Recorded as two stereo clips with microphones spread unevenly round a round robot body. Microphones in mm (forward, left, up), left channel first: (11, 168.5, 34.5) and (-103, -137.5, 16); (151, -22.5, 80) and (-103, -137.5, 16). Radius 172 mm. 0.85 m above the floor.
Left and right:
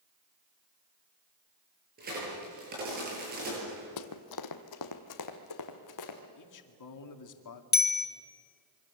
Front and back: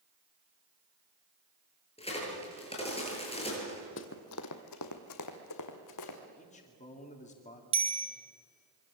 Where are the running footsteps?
55° left, 1.4 m; by 6.2 s 30° left, 3 m.